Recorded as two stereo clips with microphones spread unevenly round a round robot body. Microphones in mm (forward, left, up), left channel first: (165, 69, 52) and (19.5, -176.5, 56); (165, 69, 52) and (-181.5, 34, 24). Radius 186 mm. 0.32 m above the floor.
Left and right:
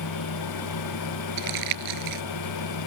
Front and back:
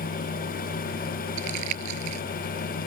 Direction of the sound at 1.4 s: 125° right.